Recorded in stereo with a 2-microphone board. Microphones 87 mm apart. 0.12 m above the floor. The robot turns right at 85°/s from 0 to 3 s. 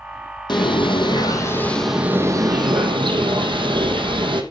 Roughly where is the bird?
Ahead left.